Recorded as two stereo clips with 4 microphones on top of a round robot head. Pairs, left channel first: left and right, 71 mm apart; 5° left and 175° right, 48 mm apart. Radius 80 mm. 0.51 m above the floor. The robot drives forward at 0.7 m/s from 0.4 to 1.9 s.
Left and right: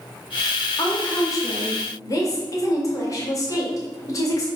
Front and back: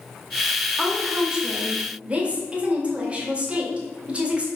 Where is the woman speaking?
100° left, 1.9 m; by 4.5 s 120° left, 2 m.